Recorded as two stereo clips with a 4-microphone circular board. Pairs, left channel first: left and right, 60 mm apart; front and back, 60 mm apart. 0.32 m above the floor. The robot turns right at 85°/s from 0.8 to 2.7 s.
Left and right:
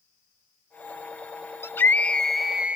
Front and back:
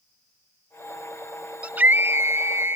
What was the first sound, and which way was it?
A scream, 115° left.